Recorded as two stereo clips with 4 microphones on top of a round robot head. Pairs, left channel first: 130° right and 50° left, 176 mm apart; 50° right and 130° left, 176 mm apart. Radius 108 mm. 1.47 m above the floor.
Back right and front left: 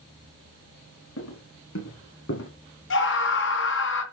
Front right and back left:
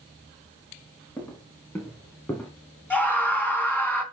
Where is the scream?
135° right, 3.5 m.